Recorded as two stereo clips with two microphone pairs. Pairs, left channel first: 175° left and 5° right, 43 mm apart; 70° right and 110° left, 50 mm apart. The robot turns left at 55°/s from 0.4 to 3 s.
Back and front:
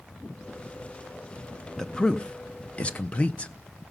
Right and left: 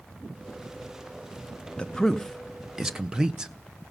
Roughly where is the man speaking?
Behind right.